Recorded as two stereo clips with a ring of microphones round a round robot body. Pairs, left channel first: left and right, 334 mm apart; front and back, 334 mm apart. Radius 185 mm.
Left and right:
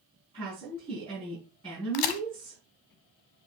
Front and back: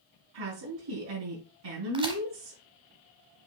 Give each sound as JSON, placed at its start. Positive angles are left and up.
{"t": 0.3, "sound": "a woman speaking", "azimuth_deg": -165, "distance_m": 4.5}
{"t": 1.9, "sound": "a crack", "azimuth_deg": 105, "distance_m": 0.6}